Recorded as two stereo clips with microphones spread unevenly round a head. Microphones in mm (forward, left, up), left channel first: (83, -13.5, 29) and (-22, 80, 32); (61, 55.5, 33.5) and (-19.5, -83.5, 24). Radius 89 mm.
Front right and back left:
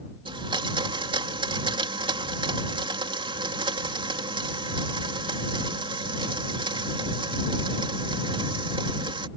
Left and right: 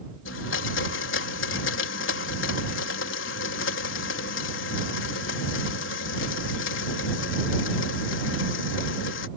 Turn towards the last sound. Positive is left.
turn(degrees=80)